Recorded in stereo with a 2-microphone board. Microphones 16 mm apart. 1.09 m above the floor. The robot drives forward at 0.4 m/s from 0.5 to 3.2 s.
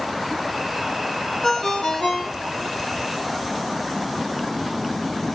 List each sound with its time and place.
1.4 s a ringtone: 80° left, 1.9 m; by 2.8 s 75° left (ahead or behind), 1.9 m